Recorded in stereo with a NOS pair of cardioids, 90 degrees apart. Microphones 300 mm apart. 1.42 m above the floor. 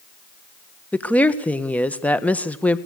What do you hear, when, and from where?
0.9 s a woman speaking: 5° left, 1.6 m